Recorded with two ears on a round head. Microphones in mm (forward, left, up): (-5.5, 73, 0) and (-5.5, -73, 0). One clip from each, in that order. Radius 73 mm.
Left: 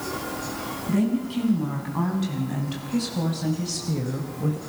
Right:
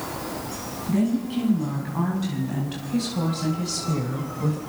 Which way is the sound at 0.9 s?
15° left (ahead or behind).